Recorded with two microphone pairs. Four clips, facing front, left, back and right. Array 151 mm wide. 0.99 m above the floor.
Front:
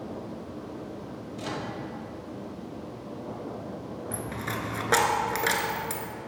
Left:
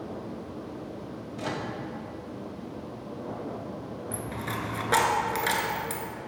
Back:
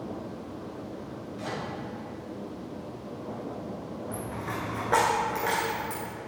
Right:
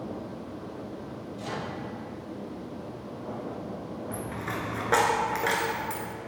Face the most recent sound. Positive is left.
turn(degrees=-25)